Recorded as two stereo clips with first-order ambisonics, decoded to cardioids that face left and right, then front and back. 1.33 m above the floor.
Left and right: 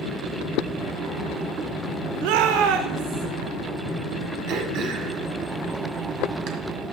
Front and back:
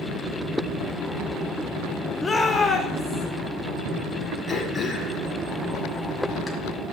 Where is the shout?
75° right, 0.7 m; by 3.3 s 90° right, 2 m.